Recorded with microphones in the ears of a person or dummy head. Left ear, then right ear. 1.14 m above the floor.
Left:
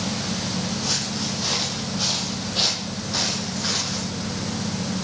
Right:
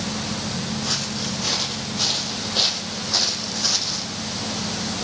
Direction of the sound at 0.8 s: 15° left (ahead or behind).